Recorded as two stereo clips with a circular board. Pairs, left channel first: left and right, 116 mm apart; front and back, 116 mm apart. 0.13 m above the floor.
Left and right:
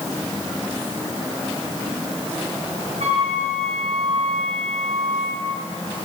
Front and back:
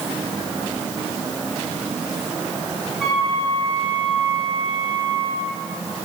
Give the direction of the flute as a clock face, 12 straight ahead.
3 o'clock.